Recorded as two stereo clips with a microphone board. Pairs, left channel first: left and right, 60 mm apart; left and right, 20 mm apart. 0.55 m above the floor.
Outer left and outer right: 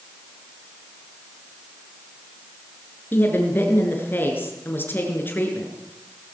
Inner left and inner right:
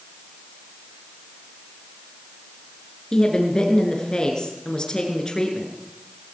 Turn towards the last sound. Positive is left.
turn(degrees=35)  # may be behind; listen again after turning